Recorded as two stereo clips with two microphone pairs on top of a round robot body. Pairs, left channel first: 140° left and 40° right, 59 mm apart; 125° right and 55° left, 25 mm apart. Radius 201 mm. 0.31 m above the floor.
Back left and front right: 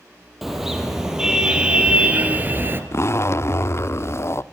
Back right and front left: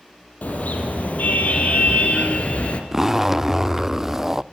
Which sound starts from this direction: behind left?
A zipper, at 2.9 s.